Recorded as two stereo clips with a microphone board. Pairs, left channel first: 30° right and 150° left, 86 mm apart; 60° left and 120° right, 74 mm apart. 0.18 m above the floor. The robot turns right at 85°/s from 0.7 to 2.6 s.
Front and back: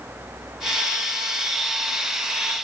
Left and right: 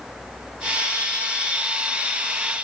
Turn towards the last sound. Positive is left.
No sound to turn to.